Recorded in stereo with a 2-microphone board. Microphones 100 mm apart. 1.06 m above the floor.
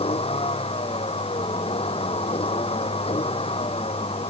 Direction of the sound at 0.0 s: 90° left.